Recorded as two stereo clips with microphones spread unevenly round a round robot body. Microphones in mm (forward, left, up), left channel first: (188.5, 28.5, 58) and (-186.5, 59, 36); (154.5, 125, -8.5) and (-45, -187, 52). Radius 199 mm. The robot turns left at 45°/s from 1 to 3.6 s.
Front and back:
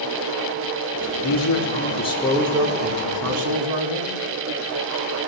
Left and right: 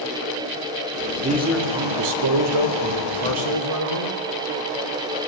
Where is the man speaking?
45° right, 3.5 m; by 4.2 s 150° right, 3.5 m.